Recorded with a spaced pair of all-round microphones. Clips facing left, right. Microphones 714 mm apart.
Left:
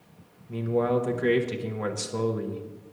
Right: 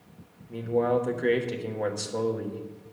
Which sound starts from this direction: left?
A man speaking, at 0.5 s.